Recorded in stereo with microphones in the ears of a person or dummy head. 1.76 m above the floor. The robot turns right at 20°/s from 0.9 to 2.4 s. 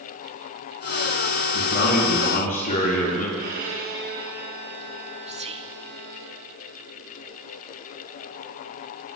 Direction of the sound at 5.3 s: 30° right (ahead or behind).